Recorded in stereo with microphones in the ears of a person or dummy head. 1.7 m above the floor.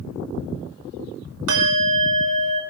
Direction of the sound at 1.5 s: 75° right (ahead or behind).